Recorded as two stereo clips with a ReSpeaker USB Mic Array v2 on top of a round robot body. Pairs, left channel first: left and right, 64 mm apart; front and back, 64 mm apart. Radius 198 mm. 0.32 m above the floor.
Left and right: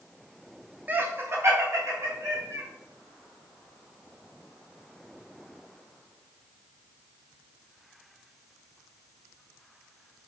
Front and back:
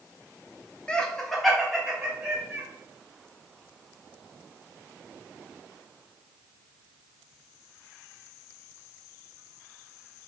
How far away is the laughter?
About 0.9 m.